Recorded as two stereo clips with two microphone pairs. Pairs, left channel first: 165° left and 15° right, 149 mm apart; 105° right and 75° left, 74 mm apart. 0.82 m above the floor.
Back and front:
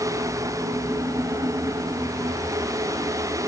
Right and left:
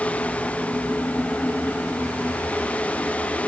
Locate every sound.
Only background noise.